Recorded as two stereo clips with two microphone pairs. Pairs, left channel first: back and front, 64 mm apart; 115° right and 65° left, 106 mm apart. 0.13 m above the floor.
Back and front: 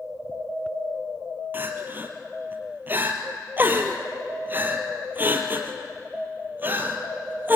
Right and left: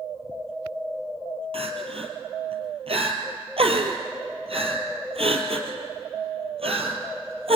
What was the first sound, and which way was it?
Crying, 55° left.